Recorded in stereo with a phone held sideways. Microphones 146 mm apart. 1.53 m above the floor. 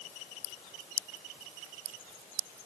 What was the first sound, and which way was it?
Only background noise.